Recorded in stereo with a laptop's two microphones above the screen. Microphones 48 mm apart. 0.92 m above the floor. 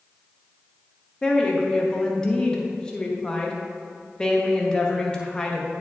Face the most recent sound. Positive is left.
turn(degrees=20)  # may be behind; listen again after turning